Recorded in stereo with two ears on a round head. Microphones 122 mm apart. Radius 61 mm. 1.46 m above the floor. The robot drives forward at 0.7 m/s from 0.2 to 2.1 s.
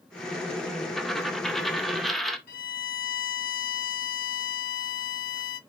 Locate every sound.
1.0 s a dropped coin: centre (ahead or behind), 0.9 m
2.5 s a violin: 70° left (ahead or behind), 0.9 m